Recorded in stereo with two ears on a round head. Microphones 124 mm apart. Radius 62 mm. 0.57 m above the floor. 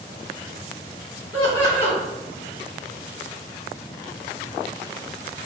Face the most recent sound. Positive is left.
turn(degrees=30)  # may be behind; listen again after turning